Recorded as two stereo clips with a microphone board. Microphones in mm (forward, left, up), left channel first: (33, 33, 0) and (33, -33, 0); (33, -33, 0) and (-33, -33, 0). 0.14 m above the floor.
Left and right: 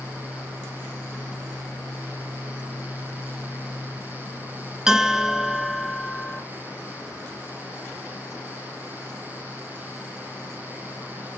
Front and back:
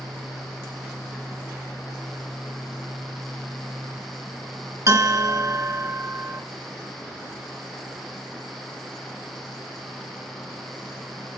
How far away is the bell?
About 0.5 m.